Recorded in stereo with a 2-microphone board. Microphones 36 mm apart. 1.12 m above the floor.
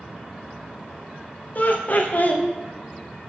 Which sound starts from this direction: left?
Laughter, at 1.6 s.